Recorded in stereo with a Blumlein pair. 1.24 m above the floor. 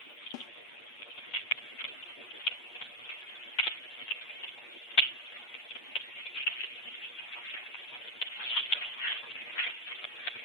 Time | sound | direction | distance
0.3 | a snare drum | 40° left | ?